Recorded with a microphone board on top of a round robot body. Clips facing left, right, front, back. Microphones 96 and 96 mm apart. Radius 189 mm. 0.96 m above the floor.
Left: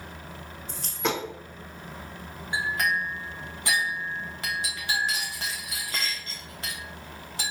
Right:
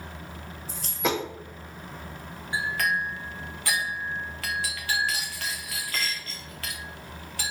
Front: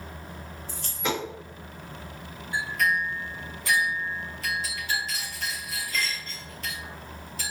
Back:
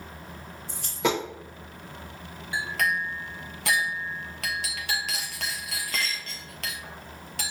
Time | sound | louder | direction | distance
0.7 | a dropped coin | right 1 dB, back 4 dB | 175° right | 0.9 m
2.5 | a clink | even, front 1 dB | 160° left | 0.5 m